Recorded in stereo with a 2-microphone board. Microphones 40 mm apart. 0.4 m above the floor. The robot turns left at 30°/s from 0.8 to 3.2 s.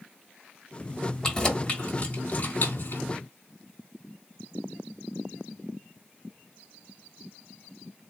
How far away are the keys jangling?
About 1.3 m.